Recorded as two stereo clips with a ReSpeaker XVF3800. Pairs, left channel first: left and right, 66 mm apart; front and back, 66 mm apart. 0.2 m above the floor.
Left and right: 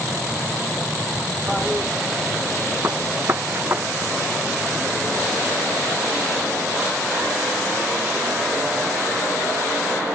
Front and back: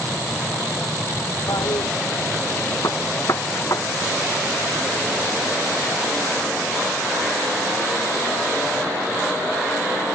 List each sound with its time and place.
1.5 s a toilet flushing: straight ahead
2.8 s a gunshot: 35° right